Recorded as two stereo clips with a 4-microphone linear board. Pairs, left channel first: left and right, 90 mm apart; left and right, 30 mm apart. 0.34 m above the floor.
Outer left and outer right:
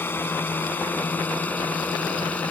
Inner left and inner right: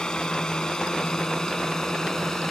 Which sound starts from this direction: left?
A drone, at 0.0 s.